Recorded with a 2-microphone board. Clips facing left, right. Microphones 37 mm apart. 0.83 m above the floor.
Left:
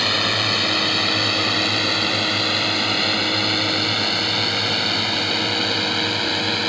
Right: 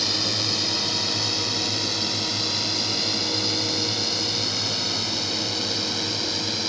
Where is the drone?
45° left (ahead or behind).